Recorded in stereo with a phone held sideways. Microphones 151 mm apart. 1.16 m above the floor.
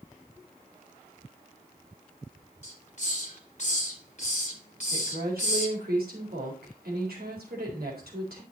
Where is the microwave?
No microwave in this recording.